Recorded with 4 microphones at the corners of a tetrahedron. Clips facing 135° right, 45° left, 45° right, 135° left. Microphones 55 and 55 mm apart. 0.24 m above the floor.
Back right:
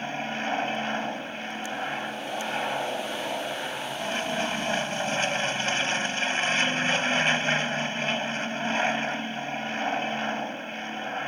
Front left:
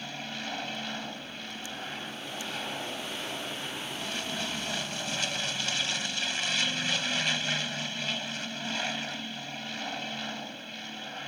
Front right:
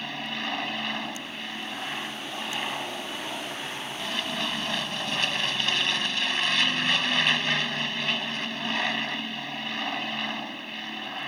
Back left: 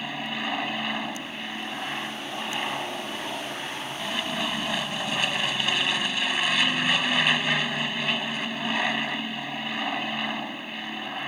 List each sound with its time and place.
0.0 s an aircraft: 150° right